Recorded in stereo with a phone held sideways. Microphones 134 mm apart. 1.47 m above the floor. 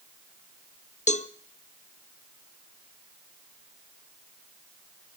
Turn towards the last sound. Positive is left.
turn(degrees=60)  # may be behind; listen again after turning